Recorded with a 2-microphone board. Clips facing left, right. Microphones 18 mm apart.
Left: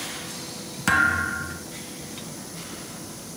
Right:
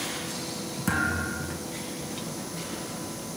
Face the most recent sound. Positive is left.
turn(degrees=45)  # may be behind; listen again after turning